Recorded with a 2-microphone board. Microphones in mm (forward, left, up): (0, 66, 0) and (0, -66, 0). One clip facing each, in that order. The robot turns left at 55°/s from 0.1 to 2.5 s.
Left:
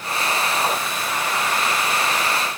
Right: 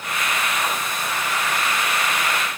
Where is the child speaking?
I don't hear a child speaking.